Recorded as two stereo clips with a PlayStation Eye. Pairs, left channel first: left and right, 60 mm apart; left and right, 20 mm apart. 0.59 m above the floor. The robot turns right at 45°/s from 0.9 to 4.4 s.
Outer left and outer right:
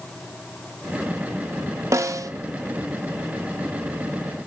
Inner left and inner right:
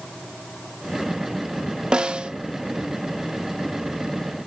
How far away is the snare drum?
About 0.5 m.